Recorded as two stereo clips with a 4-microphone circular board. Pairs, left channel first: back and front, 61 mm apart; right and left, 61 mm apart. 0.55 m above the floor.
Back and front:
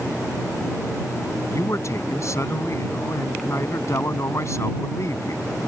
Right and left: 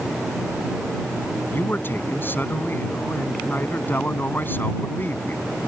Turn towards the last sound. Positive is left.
turn(degrees=-140)